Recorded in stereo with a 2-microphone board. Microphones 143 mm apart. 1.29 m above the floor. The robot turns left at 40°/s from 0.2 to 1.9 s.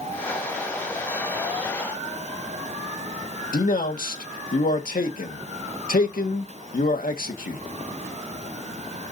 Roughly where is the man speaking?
Left.